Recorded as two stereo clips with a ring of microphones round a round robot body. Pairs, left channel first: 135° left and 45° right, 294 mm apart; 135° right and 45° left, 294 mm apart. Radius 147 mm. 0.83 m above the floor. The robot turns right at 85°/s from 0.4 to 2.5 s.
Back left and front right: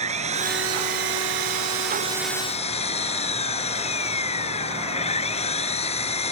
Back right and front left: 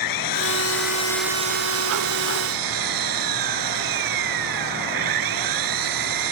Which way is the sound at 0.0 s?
115° right.